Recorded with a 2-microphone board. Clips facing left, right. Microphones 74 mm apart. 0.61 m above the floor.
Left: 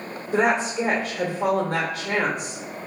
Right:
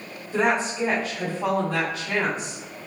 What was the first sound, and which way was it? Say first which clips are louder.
A woman speaking: left 2 dB; 60° left (ahead or behind).